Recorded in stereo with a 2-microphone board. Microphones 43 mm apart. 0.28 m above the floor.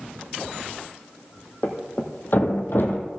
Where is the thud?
55° left (ahead or behind), 1.6 m.